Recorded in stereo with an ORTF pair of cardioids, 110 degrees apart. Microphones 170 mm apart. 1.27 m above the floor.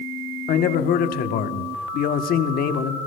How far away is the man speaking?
About 1.1 m.